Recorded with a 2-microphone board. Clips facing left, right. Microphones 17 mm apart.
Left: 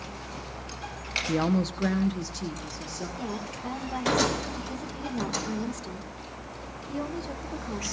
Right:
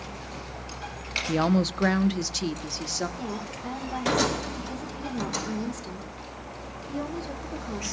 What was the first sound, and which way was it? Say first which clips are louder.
A woman speaking: right 3 dB; 15° right (ahead or behind).